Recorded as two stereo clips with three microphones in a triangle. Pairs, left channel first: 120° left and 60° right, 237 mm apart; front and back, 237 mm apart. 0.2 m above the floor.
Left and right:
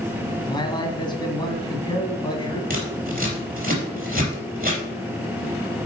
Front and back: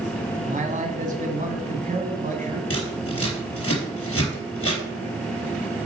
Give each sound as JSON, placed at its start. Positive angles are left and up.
{"t": 0.5, "sound": "a man speaking", "azimuth_deg": 175, "distance_m": 1.6}
{"t": 2.7, "sound": "scissors", "azimuth_deg": -10, "distance_m": 3.5}